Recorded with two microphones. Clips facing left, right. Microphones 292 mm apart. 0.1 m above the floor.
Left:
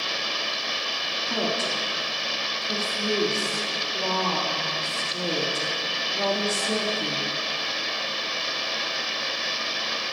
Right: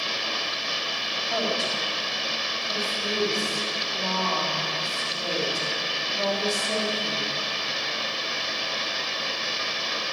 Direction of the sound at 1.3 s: 60° left (ahead or behind).